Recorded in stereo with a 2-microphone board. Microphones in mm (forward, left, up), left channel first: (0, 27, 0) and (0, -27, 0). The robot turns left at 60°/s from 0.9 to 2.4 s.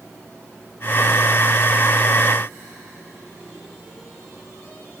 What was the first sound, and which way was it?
Only background noise.